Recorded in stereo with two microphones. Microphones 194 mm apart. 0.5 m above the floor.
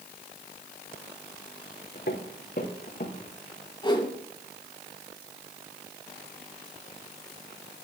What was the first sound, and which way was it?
Footsteps, 65° left (ahead or behind).